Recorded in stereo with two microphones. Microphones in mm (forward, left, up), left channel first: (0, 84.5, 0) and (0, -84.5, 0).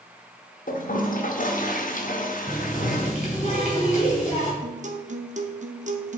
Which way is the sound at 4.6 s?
50° right (ahead or behind).